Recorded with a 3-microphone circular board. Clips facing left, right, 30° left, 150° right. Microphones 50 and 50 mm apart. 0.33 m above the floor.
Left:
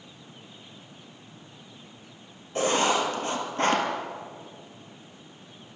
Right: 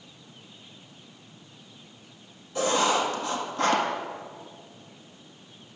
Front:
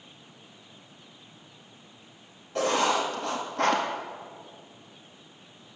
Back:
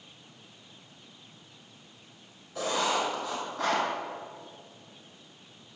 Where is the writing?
45° left, 1.8 m.